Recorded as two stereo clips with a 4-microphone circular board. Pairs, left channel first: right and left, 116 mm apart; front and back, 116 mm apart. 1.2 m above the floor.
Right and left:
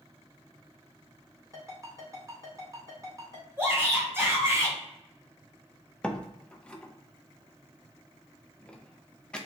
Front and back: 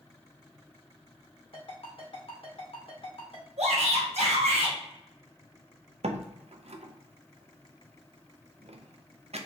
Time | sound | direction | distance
1.5 | a ringtone | 30° left | 2 m
3.6 | a shout | 160° left | 1.4 m
6.0 | a door slam | 170° right | 0.6 m